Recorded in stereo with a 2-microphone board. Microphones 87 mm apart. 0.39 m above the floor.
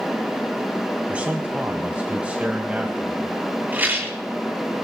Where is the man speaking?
15° right (ahead or behind), 1.8 m.